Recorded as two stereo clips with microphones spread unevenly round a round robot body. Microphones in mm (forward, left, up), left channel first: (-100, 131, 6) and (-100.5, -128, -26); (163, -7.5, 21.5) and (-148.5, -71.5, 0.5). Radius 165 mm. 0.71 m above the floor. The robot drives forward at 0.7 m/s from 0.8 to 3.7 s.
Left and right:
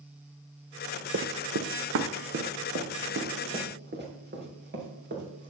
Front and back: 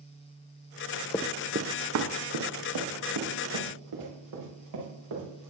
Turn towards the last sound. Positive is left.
turn(degrees=-135)